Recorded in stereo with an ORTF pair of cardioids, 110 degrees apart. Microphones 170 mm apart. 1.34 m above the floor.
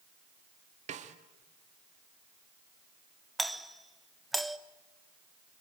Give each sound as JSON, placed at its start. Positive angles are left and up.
{"t": 0.9, "sound": "a snare drum", "azimuth_deg": -45, "distance_m": 2.0}
{"t": 3.4, "sound": "a doorbell", "azimuth_deg": 0, "distance_m": 1.3}